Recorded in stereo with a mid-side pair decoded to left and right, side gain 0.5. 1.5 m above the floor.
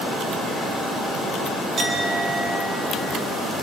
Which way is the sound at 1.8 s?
40° right.